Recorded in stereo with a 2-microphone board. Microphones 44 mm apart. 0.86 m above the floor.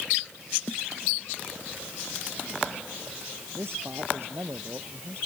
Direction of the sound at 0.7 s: 50° left (ahead or behind).